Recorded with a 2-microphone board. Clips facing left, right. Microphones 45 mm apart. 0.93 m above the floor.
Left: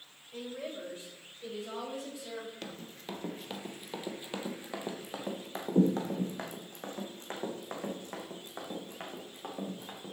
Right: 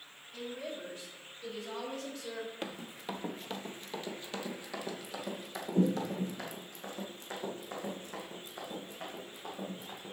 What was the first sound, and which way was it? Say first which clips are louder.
A woman speaking: left 1 dB; 40° left (ahead or behind).